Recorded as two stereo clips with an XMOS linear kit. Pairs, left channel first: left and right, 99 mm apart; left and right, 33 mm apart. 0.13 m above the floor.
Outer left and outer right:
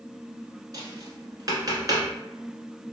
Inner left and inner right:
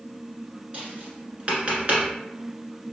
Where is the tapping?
40° right (ahead or behind), 1.1 m.